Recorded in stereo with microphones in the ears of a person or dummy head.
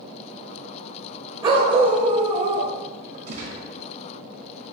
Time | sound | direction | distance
1.4 | a dog barking | 30° right (ahead or behind) | 2.5 m
3.3 | a gunshot | 45° right (ahead or behind) | 3 m